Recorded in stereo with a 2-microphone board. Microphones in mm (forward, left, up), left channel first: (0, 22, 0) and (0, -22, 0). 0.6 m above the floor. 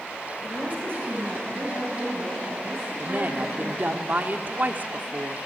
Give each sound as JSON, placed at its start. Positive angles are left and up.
{"t": 0.4, "sound": "a woman speaking", "side_deg": -55, "distance_m": 3.5}
{"t": 3.0, "sound": "a woman speaking", "side_deg": -40, "distance_m": 1.3}